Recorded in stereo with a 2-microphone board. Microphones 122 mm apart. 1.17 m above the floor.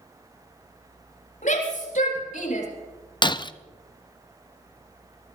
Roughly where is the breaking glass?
Left.